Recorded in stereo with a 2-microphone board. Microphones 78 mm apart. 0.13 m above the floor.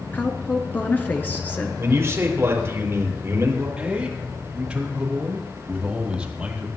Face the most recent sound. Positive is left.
turn(degrees=-15)  # may be behind; listen again after turning